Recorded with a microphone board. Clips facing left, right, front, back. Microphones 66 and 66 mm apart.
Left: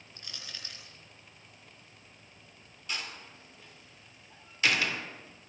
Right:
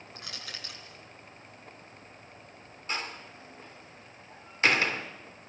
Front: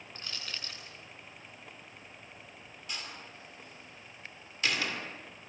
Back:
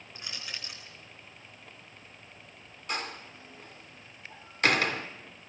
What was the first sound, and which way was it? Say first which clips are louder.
Crushing: right 3 dB, back 1 dB; 105° right.